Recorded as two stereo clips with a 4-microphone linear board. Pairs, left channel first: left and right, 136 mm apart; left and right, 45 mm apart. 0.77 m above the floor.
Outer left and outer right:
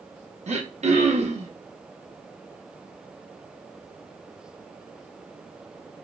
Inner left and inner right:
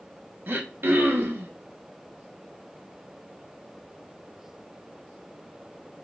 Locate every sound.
0.5 s throat clearing: 55° right (ahead or behind), 0.7 m